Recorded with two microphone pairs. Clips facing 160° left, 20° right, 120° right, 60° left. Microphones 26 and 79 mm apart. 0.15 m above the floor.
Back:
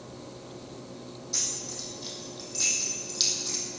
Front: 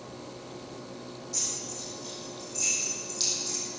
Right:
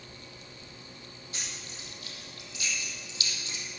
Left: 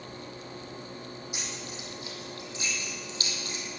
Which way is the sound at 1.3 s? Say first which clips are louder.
Back 2 dB, left 5 dB; 135° left.